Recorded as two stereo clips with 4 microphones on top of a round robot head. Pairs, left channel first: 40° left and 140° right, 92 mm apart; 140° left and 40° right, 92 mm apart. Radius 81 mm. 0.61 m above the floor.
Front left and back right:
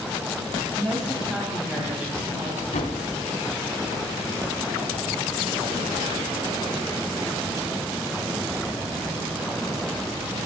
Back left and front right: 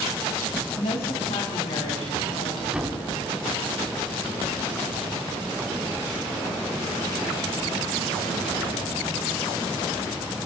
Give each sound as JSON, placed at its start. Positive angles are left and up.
{"t": 0.8, "sound": "a woman speaking", "azimuth_deg": 135, "distance_m": 3.5}
{"t": 2.7, "sound": "a thud", "azimuth_deg": 40, "distance_m": 2.0}